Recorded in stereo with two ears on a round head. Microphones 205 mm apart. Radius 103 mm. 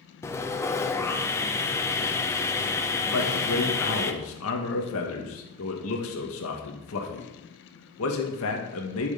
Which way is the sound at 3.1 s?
65° left (ahead or behind).